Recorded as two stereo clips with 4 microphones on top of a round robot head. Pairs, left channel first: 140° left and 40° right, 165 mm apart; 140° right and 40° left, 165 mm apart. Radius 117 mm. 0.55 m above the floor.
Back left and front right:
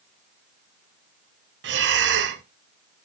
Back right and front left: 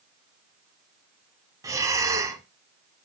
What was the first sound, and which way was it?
Breathing, 35° right.